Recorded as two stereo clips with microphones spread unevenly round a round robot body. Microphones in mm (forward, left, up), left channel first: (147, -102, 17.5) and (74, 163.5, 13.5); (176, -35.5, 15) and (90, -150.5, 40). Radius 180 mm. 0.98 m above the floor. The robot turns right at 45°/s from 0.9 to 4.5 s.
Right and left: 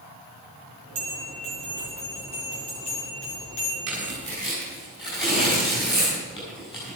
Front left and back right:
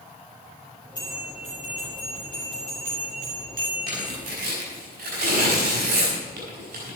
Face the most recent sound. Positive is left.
turn(degrees=-150)